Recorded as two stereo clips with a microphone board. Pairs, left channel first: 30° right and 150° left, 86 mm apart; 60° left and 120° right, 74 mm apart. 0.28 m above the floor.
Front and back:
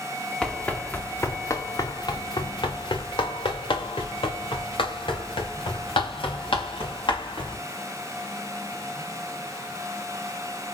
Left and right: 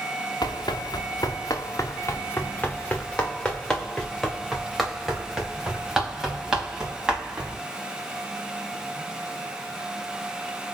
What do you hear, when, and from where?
0.4 s running footsteps: 55° left, 1.4 m; by 7.6 s 45° right, 4.5 m